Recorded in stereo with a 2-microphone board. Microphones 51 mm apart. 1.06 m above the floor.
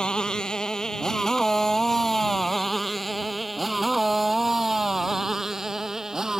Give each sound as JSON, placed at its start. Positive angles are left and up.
{"t": 0.0, "sound": "a motorcycle", "side_deg": 15}